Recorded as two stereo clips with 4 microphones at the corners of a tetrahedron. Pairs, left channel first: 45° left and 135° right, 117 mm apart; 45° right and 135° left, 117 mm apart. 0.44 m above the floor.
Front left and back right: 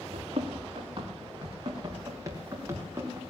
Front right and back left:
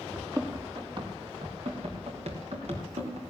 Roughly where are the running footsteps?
Behind.